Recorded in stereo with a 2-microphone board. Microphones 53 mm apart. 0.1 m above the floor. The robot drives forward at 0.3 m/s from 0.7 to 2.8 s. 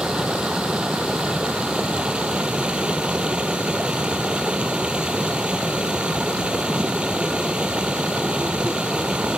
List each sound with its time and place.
0.0 s running water: 15° right (ahead or behind); by 9.4 s 20° right (ahead or behind)